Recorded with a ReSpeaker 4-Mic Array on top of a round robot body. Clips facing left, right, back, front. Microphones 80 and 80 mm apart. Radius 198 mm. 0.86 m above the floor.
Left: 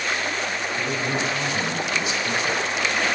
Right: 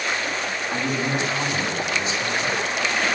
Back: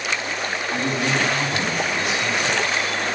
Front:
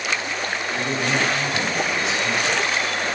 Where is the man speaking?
135° right, 7.5 m; by 2.6 s 145° right, 8 m.